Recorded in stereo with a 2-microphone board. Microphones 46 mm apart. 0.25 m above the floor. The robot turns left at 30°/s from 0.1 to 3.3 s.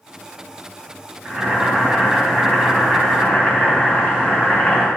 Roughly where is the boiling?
Behind right.